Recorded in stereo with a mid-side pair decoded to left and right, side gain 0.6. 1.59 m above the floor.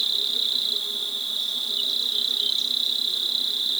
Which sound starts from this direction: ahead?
An insect, at 0.0 s.